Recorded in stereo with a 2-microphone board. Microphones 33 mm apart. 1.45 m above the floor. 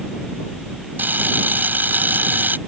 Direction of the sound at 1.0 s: 85° right.